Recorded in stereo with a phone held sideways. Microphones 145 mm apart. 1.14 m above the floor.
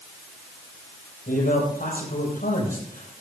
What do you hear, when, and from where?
1.3 s a man speaking: 80° left, 7 m